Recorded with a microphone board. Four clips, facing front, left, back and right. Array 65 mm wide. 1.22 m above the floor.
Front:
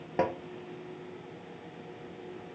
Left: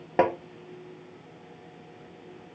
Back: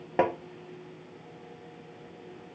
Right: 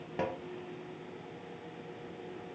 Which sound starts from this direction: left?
Tapping, at 0.2 s.